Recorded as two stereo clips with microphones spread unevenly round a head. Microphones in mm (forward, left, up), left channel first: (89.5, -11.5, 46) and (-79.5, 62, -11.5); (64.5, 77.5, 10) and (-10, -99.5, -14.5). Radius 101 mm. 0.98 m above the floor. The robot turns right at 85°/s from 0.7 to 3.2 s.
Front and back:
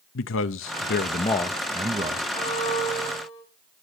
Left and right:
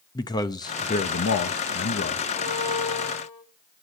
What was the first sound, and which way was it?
A man speaking, 5° right.